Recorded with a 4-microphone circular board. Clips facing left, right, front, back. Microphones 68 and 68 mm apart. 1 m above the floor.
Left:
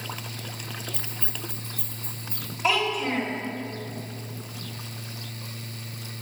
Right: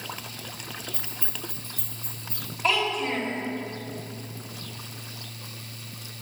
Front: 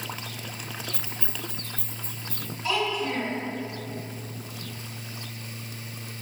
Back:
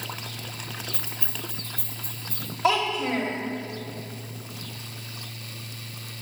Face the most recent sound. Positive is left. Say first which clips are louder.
# left 1 dB, back 4 dB
turn(degrees=175)